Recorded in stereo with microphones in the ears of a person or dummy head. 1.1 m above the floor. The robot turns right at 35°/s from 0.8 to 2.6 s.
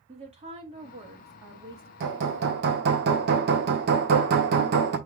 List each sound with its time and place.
0.1 s a woman speaking: 155° right, 1.3 m; by 1.9 s 115° right, 1.3 m
2.0 s hammering: 60° right (ahead or behind), 1.0 m; by 5.0 s 55° right (ahead or behind), 1.0 m